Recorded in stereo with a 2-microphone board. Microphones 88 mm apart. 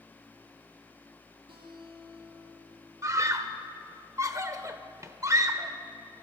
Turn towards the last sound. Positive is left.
turn(degrees=-35)  # may be behind; listen again after turning